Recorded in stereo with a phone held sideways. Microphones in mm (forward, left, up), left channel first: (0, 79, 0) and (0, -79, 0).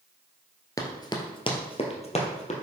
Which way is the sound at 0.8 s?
20° left (ahead or behind).